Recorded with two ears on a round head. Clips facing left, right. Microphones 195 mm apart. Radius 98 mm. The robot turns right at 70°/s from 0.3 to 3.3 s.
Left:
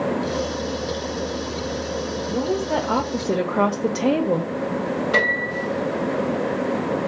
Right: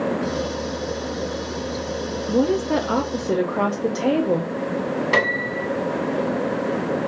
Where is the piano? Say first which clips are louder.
Right 1 dB; 85° right, 2.5 m.